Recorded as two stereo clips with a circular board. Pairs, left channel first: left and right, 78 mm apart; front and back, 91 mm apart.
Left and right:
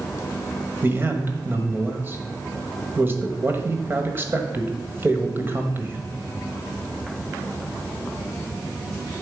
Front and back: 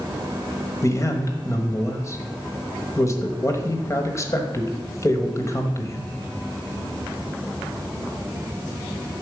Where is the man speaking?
40° right, 1.2 m.